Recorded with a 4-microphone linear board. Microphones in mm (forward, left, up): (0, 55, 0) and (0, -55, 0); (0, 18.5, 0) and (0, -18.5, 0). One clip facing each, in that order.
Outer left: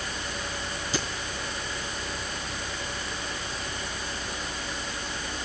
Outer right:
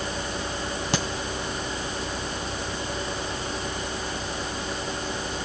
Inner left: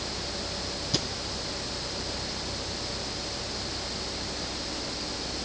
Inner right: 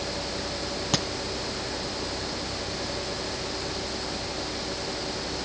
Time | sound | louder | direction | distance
0.9 | a crack | outer right 4 dB, inner right 3 dB | 80° right | 2.5 m